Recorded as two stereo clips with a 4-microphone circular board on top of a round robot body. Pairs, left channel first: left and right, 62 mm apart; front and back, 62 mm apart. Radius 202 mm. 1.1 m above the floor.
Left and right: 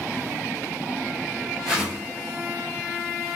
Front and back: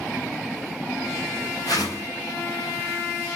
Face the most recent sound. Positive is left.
turn(degrees=-10)